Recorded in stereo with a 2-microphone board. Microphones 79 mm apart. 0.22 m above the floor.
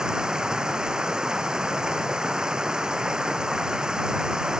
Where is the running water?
10° right (ahead or behind).